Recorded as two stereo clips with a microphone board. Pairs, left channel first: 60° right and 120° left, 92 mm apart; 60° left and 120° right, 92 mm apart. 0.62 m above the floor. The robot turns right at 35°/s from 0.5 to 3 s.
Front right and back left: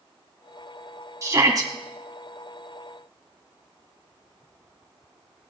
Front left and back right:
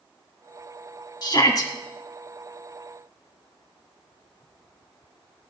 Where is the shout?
75° left, 1.5 m; by 1.7 s 95° left, 1.5 m.